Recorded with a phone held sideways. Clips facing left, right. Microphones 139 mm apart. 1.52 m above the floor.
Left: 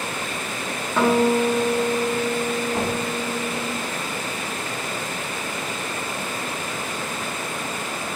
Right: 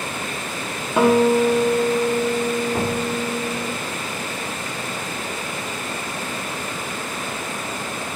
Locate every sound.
1.0 s a guitar: 15° right (ahead or behind), 2 m
2.7 s knocking: 15° right (ahead or behind), 3.5 m